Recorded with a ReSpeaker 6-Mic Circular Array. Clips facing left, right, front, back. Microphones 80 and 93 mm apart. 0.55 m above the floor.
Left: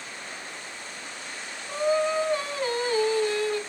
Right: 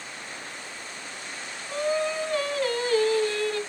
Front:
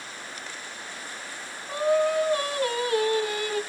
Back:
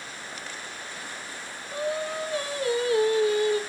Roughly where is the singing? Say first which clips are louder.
Left 2 dB, front 7 dB; ahead.